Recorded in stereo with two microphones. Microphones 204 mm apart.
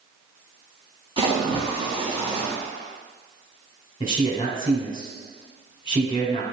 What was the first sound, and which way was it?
A splash, 25° right (ahead or behind).